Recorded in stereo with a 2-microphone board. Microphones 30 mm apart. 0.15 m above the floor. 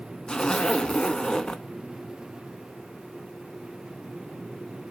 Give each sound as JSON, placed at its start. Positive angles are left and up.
{"t": 0.3, "sound": "a zipper", "side_deg": 30, "distance_m": 0.8}